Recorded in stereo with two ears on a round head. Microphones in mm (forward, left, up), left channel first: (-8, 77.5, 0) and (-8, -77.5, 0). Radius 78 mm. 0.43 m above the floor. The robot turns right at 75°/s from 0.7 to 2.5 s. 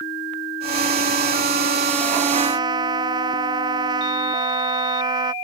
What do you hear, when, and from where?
2.3 s a trumpet: 40° right (ahead or behind); by 5.3 s 25° right (ahead or behind)